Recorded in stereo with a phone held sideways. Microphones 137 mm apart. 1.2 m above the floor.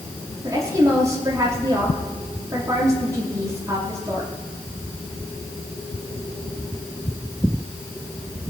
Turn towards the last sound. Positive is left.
turn(degrees=-25)  # may be behind; listen again after turning